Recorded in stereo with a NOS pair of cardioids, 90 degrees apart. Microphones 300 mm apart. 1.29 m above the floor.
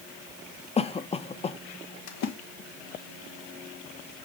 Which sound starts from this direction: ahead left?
A splash, at 2.1 s.